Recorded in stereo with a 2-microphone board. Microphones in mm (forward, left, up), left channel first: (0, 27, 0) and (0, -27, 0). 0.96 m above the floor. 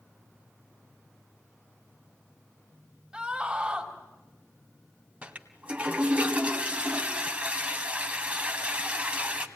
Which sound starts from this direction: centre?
A scream, at 3.1 s.